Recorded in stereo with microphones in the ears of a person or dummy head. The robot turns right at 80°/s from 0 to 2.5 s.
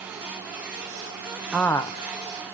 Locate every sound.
1.5 s a woman speaking: straight ahead, 0.7 m; by 2.5 s 80° left, 0.7 m